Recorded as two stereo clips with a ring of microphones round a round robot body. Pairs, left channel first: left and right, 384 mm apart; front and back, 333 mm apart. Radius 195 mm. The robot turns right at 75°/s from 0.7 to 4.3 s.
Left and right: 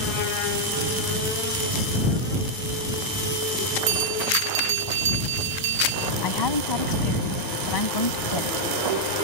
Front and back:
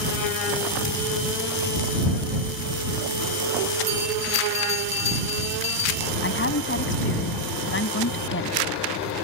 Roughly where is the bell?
Right.